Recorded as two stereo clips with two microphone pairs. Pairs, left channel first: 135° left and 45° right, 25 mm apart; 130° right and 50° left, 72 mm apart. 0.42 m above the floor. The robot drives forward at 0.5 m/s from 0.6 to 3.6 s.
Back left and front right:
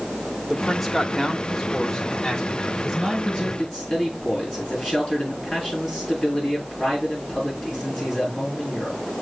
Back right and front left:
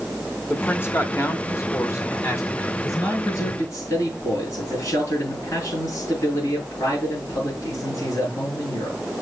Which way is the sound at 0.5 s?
135° right.